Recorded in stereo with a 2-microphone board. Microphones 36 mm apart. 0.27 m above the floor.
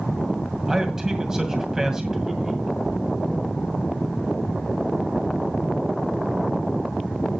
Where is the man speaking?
15° right (ahead or behind), 2 m.